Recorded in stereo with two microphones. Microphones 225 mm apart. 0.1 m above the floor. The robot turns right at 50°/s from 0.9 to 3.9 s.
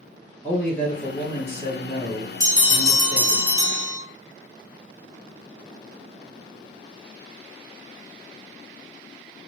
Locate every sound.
0.4 s a man speaking: 10° left, 2 m; by 3.4 s 135° left, 2 m
2.4 s a bell: 15° left (ahead or behind), 1.5 m; by 4.0 s 25° left (ahead or behind), 1.5 m